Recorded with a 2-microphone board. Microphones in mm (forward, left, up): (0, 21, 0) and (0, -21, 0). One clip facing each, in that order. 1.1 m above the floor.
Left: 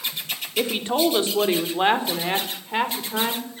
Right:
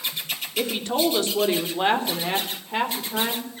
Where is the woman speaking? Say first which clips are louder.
Left 2 dB; 25° left (ahead or behind), 3.5 m; by 3.5 s 10° left (ahead or behind), 4.5 m.